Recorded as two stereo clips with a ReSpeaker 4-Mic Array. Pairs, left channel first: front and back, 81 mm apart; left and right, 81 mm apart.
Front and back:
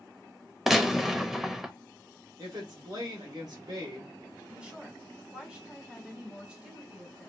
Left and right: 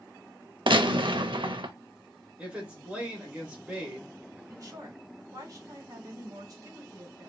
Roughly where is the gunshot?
Right.